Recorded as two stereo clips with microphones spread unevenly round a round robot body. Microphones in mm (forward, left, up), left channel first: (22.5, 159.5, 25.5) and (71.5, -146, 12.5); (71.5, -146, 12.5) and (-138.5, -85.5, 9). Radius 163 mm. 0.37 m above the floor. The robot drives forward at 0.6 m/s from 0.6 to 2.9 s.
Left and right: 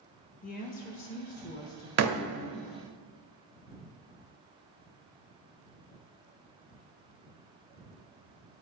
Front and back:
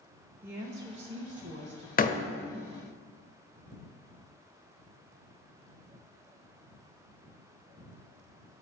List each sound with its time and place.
0.4 s a woman speaking: 100° left, 0.8 m; by 1.9 s 160° left, 1.2 m
2.0 s a door slam: 60° right, 0.9 m; by 2.2 s 70° right, 0.8 m